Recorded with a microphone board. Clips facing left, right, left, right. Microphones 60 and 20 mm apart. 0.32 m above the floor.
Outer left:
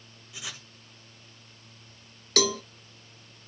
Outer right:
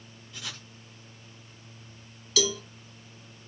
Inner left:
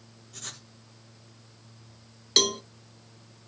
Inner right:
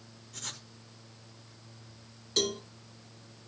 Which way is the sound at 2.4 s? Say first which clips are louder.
Outer left 2 dB, inner left 7 dB; 55° left (ahead or behind).